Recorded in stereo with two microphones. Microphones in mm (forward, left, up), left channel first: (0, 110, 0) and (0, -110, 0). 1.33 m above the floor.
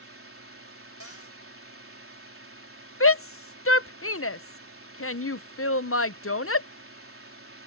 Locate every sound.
0.0 s a drone: 75° right (ahead or behind)
1.0 s a cupboard door: 80° left
3.0 s a shout: 75° left (ahead or behind)